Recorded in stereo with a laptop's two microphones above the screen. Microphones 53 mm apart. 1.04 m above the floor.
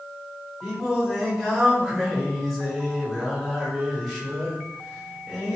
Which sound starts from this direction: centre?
Singing, at 0.6 s.